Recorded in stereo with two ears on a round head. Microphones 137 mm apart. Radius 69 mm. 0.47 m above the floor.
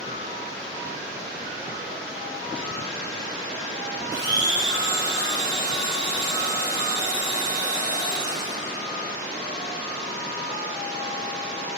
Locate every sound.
4.1 s a blender: 25° right (ahead or behind), 1.4 m